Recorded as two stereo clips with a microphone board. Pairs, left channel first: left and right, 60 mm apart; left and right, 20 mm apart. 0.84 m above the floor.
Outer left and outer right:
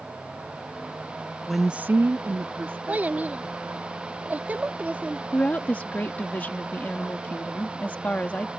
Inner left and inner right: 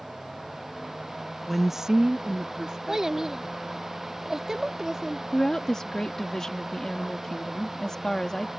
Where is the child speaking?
25° right (ahead or behind).